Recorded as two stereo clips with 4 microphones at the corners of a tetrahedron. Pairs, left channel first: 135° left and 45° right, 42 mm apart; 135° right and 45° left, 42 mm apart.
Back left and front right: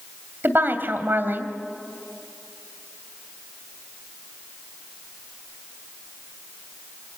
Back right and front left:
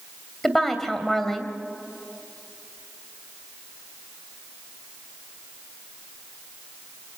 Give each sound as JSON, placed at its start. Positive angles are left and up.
{"t": 0.4, "sound": "a woman speaking", "azimuth_deg": -50, "distance_m": 2.5}